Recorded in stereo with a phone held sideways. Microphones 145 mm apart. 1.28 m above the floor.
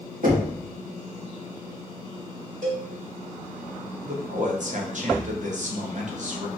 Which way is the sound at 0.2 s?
75° right (ahead or behind).